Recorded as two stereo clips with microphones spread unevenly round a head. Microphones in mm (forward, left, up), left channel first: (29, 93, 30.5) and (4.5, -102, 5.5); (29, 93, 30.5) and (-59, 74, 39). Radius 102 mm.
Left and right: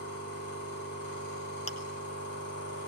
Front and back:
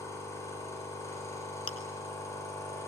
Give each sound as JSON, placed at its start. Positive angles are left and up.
{"t": 0.0, "sound": "a machine running", "azimuth_deg": 70, "distance_m": 8.5}
{"t": 1.7, "sound": "chewing", "azimuth_deg": 25, "distance_m": 2.0}